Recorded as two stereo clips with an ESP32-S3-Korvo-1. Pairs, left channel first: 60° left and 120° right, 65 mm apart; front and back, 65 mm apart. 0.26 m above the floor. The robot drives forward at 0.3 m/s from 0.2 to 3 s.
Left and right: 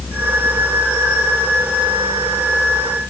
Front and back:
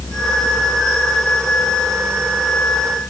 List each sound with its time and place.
Only background noise.